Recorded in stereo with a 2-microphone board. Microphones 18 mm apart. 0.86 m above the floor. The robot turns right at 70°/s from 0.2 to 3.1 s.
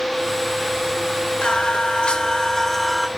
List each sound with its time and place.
1.4 s singing: 70° left, 1.8 m; by 3.1 s 175° right, 1.8 m